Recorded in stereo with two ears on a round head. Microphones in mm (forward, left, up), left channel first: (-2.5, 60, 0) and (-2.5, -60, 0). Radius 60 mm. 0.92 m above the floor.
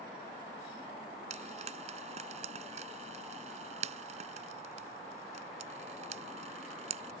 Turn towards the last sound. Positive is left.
turn(degrees=-55)  # may be behind; listen again after turning